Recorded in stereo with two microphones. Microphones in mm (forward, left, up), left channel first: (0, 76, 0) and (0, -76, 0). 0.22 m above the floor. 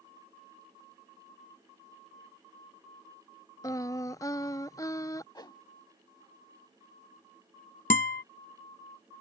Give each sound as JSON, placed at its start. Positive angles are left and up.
{"t": 3.6, "sound": "singing", "side_deg": 25}
{"t": 5.3, "sound": "a whoosh", "side_deg": 25}
{"t": 7.9, "sound": "a guitar", "side_deg": 65}